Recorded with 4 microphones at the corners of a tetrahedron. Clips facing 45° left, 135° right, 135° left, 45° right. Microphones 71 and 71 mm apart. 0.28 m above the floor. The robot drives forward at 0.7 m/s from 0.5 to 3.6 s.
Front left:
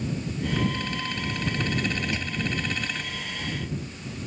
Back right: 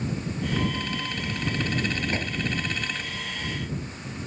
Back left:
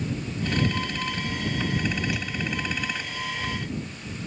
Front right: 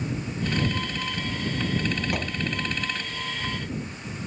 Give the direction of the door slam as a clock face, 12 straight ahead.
3 o'clock.